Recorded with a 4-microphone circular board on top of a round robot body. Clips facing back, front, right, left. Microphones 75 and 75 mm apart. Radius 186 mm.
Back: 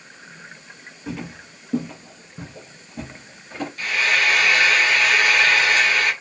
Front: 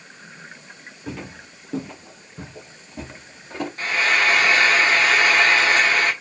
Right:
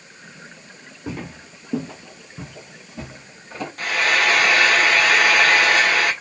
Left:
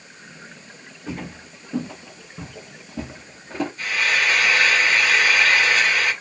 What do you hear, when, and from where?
1.1 s footsteps: 95° right, 1.2 m; by 3.7 s 80° left, 1.1 m
3.8 s frying: 60° right, 0.5 m